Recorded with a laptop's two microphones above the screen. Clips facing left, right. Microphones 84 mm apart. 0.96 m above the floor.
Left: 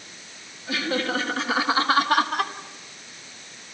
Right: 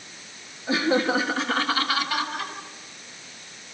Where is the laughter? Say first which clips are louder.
Right 4 dB; 30° right (ahead or behind), 1.7 m; by 2.5 s 70° left (ahead or behind), 1.3 m.